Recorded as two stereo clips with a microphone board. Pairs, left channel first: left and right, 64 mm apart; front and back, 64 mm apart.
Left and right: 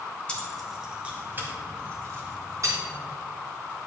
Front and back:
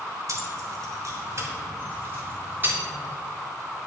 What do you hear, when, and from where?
0.3 s keys jangling: 160° left, 1.7 m; by 2.8 s 120° right, 3.5 m